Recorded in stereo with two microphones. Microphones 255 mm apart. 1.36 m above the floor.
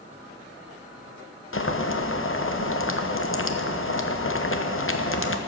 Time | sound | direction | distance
1.5 | boiling | 55° left (ahead or behind) | 1.0 m